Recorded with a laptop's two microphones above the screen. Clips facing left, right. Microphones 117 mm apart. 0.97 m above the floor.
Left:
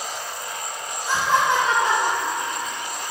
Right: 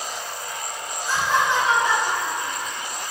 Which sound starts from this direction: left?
Laughter, at 1.1 s.